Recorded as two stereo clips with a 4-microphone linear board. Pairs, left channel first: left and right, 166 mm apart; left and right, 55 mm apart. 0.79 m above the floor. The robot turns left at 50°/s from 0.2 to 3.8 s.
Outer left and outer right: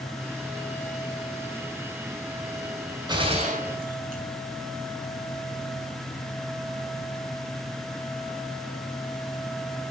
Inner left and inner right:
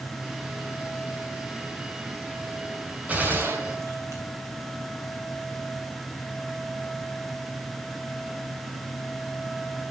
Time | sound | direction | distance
3.1 | a gunshot | 25° right | 3 m